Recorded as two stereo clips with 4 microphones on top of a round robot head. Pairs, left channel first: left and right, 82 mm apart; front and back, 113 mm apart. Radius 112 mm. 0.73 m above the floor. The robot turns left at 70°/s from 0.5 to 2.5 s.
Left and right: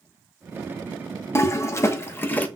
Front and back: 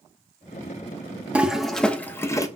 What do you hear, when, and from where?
1.4 s a toilet flushing: 110° left, 0.8 m; by 2.5 s 35° left, 0.8 m